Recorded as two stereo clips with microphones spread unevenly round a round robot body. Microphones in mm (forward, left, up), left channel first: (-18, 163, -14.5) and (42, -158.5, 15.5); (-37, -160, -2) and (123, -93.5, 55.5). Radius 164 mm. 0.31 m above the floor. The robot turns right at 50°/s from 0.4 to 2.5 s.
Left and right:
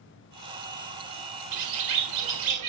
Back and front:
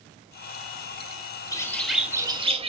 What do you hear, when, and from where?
1.5 s a bird: 100° right, 0.6 m; by 2.7 s 50° right, 0.6 m